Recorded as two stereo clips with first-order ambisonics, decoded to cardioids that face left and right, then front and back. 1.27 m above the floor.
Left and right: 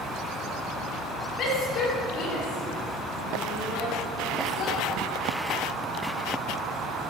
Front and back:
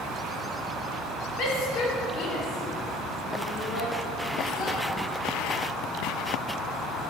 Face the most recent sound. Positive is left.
turn(degrees=55)